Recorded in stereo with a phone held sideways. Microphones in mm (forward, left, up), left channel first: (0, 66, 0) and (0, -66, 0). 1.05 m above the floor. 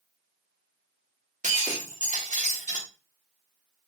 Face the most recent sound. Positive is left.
turn(degrees=-70)  # may be behind; listen again after turning